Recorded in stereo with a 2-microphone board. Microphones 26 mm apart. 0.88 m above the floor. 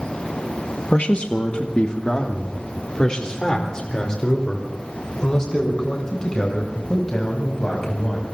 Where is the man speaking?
50° left (ahead or behind), 0.9 m; by 8.2 s 20° left (ahead or behind), 5.5 m.